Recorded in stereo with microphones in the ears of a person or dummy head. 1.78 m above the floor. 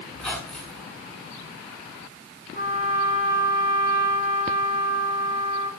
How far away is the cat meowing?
No cat meowing in this recording.